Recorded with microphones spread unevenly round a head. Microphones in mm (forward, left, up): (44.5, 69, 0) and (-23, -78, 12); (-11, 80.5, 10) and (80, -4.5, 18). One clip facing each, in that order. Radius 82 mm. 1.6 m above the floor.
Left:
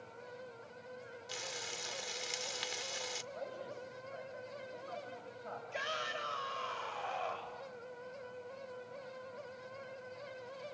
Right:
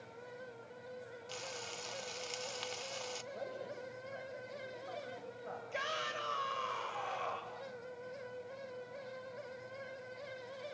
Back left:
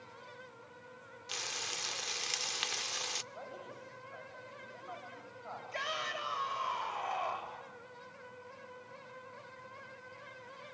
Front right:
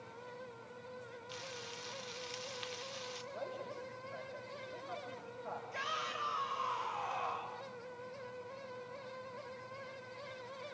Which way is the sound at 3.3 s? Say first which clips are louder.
Right 1 dB, front right 4 dB; 70° right.